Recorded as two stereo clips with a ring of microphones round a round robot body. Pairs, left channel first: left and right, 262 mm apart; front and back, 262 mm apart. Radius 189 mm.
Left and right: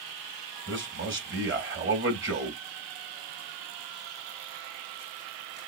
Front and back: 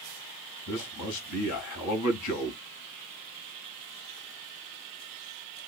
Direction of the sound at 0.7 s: 45° right.